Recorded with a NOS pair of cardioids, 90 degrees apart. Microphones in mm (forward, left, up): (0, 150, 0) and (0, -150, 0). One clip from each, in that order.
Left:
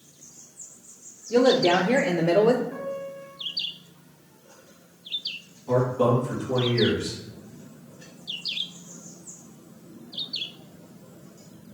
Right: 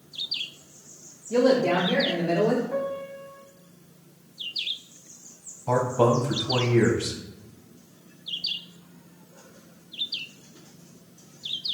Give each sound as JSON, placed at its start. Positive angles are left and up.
{"t": 1.3, "sound": "a woman speaking", "azimuth_deg": 5, "distance_m": 0.6}
{"t": 2.7, "sound": "a piano", "azimuth_deg": -55, "distance_m": 1.5}
{"t": 5.7, "sound": "a man speaking", "azimuth_deg": -60, "distance_m": 1.3}